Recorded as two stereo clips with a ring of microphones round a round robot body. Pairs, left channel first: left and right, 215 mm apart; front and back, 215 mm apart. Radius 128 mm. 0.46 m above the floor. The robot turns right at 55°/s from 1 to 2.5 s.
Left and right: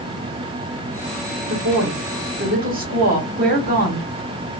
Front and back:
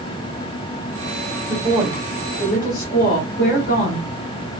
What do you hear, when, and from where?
1.5 s a woman speaking: 105° right, 1.7 m; by 4.1 s 45° right, 1.7 m